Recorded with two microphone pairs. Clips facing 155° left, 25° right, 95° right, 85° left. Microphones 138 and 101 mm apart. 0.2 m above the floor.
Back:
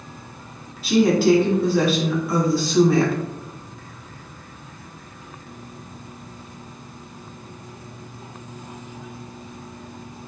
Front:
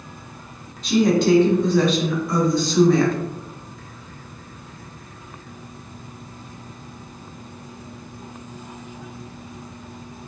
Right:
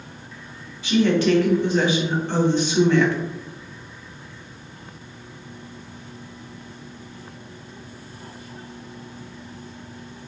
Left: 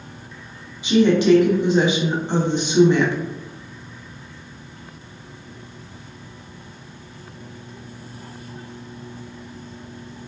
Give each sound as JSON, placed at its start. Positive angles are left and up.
{"t": 0.8, "sound": "a woman speaking", "azimuth_deg": 80, "distance_m": 1.0}